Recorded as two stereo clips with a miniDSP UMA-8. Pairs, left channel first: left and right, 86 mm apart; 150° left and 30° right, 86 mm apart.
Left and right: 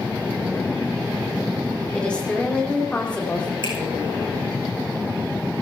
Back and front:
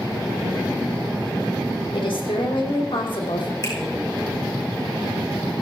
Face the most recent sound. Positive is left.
turn(degrees=115)